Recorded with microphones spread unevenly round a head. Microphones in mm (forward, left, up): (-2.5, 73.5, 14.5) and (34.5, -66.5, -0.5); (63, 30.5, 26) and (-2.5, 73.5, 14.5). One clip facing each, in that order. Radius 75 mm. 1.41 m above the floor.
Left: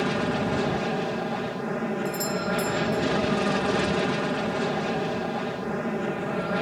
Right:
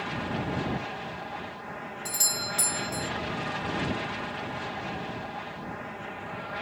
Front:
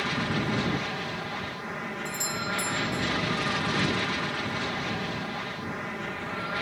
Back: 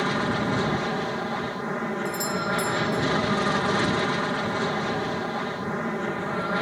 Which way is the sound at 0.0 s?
100° left.